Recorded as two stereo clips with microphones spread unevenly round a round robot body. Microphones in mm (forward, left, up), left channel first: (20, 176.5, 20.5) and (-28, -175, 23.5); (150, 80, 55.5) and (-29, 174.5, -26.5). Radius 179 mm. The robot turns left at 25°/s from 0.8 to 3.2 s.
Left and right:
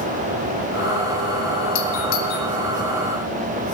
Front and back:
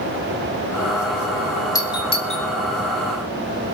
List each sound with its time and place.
1.8 s a doorbell: 50° left, 3 m; by 2.5 s 35° left, 3 m